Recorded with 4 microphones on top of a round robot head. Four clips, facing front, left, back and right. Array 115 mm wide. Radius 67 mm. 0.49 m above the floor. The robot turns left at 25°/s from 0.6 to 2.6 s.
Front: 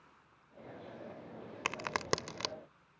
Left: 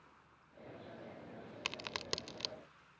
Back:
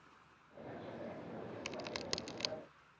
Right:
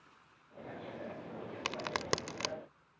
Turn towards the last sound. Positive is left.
turn(degrees=-50)